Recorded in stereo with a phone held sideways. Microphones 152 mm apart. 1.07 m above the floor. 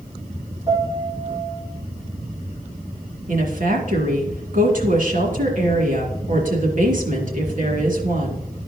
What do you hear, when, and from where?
0.7 s a piano: 30° right (ahead or behind), 3 m
3.3 s a woman speaking: 60° right (ahead or behind), 2.5 m